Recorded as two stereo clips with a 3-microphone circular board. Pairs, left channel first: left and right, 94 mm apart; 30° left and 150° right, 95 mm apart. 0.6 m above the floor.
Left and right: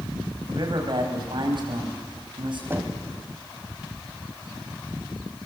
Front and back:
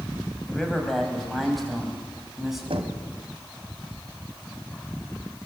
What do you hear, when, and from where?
0.5 s a man speaking: 55° right, 4.5 m; by 2.6 s 60° right, 5.5 m
2.7 s knocking: 155° right, 2.5 m